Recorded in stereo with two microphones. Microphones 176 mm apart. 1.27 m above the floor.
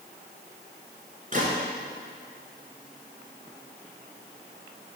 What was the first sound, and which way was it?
A gunshot, 45° right (ahead or behind).